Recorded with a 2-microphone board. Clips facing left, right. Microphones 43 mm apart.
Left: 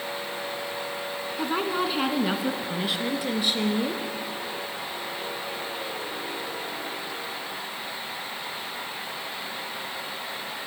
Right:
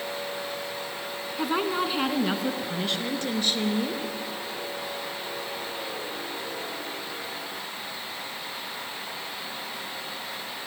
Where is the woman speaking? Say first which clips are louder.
Right 1 dB; 5° right (ahead or behind), 1.2 m; by 4.0 s 15° left (ahead or behind), 2 m.